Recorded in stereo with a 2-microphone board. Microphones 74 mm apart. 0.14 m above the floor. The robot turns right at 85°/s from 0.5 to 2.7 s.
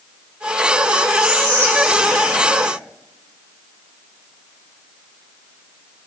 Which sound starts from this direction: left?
Whispering, at 1.2 s.